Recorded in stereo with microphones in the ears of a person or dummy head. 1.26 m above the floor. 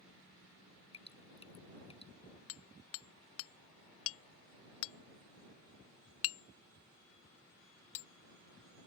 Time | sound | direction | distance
0.9 | dripping | 35° left (ahead or behind) | ?
2.5 | hammering | 75° left (ahead or behind) | ?